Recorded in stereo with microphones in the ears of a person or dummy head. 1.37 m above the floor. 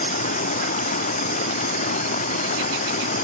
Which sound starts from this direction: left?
Running water, at 0.0 s.